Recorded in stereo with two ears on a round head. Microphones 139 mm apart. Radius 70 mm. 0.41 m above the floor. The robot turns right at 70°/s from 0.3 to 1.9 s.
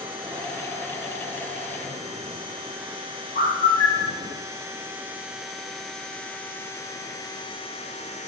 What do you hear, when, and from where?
3.4 s a bird: 75° left (ahead or behind), 1.2 m